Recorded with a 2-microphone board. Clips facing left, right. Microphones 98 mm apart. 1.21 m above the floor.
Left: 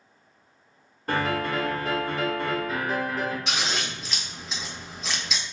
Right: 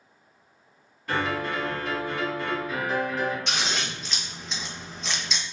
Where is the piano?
40° left (ahead or behind), 1.0 m.